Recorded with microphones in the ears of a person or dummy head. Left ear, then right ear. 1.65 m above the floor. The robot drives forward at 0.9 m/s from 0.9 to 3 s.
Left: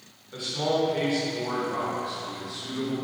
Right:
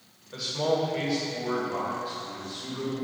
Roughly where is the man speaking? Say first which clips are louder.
Even; centre.